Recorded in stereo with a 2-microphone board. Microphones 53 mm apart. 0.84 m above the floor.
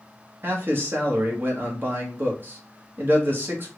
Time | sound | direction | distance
0.4 | a man speaking | 40° right (ahead or behind) | 1.0 m